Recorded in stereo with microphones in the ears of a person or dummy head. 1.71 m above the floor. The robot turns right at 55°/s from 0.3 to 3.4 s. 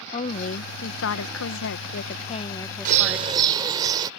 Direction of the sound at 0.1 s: 30° left.